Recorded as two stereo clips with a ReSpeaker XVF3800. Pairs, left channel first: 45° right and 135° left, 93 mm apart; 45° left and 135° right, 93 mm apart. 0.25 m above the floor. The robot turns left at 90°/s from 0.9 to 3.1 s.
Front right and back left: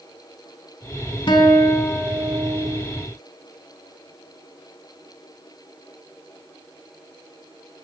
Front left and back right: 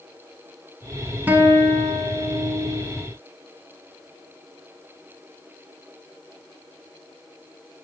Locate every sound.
1.3 s a guitar: 65° right, 0.8 m; by 2.8 s 155° left, 0.8 m